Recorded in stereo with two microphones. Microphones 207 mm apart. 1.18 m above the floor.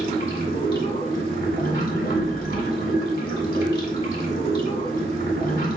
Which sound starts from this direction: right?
Running water, at 0.0 s.